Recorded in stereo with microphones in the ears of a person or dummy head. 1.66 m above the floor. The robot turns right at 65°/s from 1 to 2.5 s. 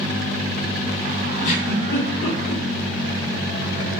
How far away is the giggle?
About 0.9 m.